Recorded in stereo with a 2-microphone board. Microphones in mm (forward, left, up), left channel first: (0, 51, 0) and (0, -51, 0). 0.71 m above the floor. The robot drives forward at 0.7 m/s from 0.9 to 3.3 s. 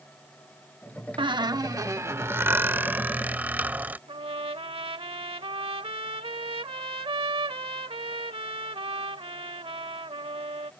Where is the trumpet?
65° right (ahead or behind).